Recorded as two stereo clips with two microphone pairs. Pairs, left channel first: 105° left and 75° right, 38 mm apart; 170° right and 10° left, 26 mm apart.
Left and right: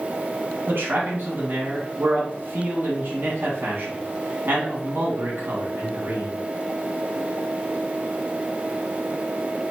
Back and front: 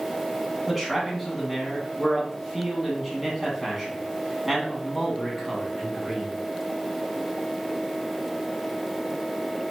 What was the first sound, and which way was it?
A man speaking, 75° right.